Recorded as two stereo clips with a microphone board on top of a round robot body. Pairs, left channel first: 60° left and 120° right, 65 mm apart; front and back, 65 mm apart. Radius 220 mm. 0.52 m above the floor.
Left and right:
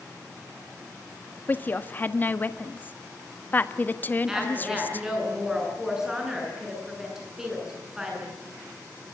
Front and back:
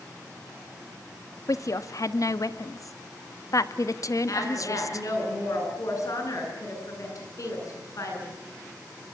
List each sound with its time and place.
1.5 s a woman speaking: 5° left, 1.5 m
4.3 s a woman speaking: 40° right, 8.5 m